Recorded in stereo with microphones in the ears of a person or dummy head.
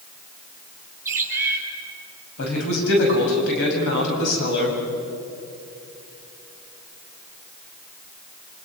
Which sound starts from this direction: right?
A bird, at 1.1 s.